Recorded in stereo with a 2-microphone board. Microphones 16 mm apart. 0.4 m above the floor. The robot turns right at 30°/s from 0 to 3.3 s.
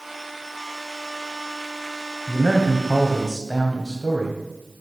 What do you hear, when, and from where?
2.3 s a man speaking: 130° left, 2.0 m; by 4.4 s 160° left, 2.0 m